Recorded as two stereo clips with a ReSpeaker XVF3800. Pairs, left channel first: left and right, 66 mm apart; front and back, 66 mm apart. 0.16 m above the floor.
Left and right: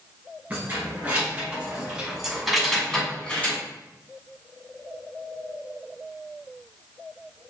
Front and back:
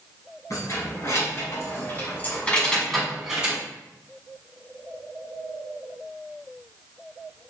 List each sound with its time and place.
0.5 s keys jangling: 25° right, 1.5 m; by 3.6 s 130° left, 0.9 m